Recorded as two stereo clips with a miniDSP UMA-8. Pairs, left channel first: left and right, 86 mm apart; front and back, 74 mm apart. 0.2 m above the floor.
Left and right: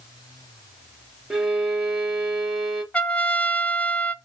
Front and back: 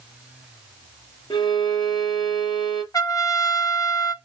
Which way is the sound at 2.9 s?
20° left.